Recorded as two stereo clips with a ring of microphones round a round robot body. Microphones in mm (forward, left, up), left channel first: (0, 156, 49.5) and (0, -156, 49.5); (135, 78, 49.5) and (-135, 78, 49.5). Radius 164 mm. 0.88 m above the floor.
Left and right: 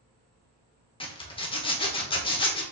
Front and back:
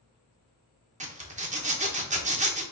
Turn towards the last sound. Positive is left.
turn(degrees=145)